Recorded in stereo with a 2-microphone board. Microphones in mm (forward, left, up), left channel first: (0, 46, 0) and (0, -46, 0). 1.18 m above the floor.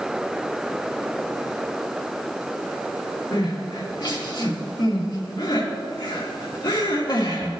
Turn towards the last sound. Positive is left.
turn(degrees=55)  # may be behind; listen again after turning